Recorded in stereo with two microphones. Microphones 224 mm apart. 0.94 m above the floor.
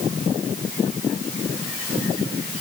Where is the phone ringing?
No phone ringing in this recording.